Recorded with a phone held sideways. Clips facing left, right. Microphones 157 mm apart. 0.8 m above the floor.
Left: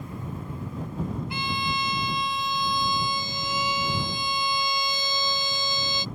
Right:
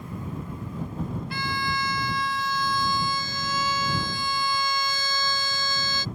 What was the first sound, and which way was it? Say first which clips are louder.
A violin: even; 20° left (ahead or behind).